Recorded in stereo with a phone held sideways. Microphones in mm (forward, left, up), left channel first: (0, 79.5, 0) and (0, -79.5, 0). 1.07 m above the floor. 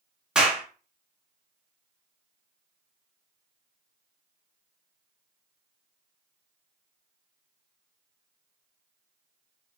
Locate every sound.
0.3 s a clap: 5° right (ahead or behind), 0.7 m